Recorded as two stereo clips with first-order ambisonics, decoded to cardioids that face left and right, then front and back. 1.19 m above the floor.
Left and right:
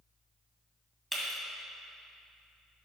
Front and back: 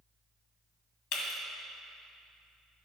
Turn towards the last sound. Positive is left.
turn(degrees=-5)